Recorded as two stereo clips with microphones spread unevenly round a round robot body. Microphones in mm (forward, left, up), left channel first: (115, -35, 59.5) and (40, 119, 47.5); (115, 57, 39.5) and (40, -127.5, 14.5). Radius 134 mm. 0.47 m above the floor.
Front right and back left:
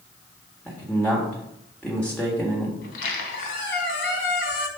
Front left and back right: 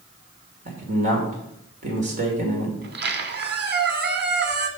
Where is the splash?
I don't hear a splash.